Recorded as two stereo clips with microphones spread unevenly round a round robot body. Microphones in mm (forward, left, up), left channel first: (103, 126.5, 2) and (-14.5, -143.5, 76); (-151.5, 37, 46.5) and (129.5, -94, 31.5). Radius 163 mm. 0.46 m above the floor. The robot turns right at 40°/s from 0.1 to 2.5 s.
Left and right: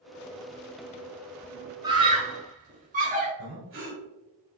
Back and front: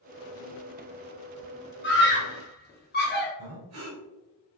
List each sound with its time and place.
1.8 s a scream: 155° left, 1.0 m; by 3.3 s straight behind, 1.0 m
3.4 s breathing: 65° right, 1.6 m